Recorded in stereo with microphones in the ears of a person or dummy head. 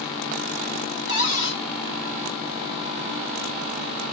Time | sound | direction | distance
1.1 | a cupboard door | 65° left (ahead or behind) | 4.5 m